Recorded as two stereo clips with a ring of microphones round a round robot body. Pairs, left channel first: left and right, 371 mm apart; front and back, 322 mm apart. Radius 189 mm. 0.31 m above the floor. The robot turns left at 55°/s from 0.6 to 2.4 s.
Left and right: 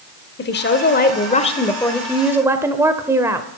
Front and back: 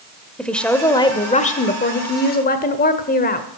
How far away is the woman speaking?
About 0.9 m.